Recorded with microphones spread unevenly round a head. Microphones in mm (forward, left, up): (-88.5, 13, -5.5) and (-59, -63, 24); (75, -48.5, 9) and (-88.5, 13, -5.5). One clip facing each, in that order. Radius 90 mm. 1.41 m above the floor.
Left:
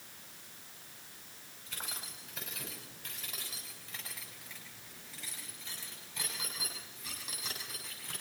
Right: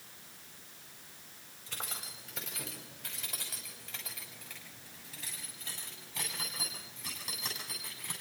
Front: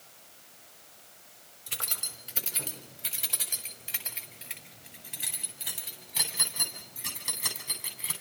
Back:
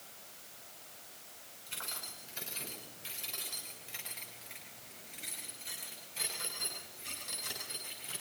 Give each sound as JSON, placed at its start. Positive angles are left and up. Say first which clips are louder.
{"t": 1.7, "sound": "keys jangling", "louder": "right 2 dB, front 4 dB", "azimuth_deg": -15, "distance_m": 5.0}